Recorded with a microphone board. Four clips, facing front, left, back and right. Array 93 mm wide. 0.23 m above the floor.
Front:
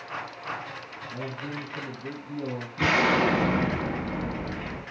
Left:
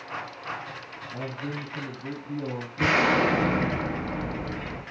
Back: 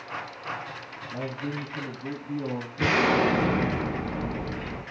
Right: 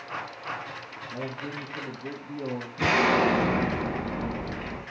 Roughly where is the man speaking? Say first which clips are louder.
Left 1 dB, back 3 dB; behind.